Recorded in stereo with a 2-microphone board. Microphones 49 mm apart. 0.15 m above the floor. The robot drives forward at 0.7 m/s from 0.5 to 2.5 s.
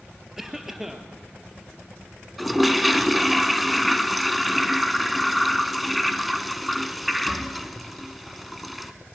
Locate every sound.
0.4 s a cough: 5° right (ahead or behind), 2.5 m
2.4 s a toilet flushing: centre (ahead or behind), 1.1 m